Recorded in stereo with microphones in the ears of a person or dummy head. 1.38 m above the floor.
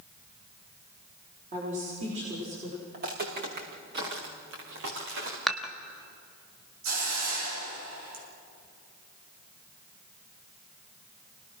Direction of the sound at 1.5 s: 45° right (ahead or behind).